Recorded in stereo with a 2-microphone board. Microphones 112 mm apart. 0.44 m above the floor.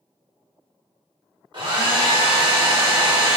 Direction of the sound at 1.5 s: 45° right (ahead or behind).